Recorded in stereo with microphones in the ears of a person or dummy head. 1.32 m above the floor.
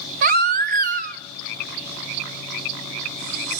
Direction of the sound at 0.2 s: 45° right (ahead or behind).